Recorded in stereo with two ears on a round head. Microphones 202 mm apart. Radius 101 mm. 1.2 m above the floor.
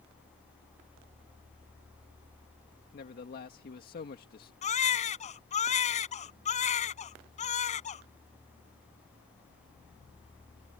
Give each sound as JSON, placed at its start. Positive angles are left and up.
{"t": 2.9, "sound": "a man speaking", "side_deg": 40}
{"t": 4.6, "sound": "a baby crying", "side_deg": 30}